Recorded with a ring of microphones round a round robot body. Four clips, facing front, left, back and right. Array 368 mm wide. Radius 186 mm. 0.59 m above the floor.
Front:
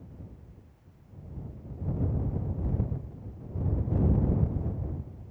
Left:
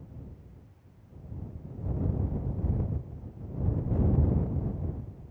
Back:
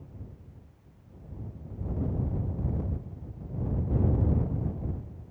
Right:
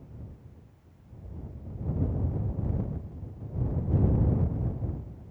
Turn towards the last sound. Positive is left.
No sound to turn to.